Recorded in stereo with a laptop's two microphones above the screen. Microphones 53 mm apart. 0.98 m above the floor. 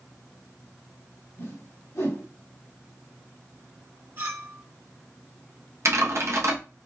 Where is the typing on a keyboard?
55° right (ahead or behind), 0.9 m.